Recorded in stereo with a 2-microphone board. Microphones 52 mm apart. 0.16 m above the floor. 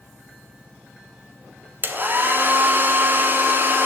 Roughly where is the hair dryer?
Right.